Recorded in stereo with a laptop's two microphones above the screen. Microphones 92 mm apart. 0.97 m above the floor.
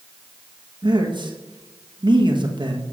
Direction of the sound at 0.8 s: 55° right (ahead or behind).